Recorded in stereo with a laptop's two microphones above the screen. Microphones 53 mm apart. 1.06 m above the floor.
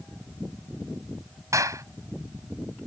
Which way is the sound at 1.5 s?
85° right.